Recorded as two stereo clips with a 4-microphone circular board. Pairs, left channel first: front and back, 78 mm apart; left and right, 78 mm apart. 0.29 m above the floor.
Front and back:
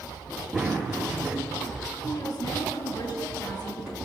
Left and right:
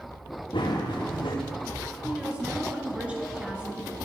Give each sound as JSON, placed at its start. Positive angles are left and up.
{"t": 0.5, "sound": "running footsteps", "azimuth_deg": 100, "distance_m": 3.5}
{"t": 2.0, "sound": "a woman speaking", "azimuth_deg": -15, "distance_m": 3.0}